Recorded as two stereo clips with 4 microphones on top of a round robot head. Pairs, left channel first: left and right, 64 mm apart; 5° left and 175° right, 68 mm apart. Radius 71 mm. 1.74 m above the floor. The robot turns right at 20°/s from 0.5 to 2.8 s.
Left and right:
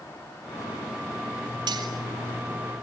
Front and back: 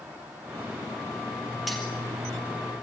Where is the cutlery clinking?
90° right, 2.5 m; by 1.9 s 85° right, 2.5 m.